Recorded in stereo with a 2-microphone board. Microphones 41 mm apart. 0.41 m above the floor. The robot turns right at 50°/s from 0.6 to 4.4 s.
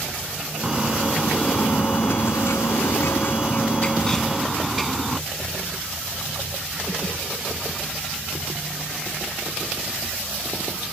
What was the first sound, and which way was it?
A bird, 10° right.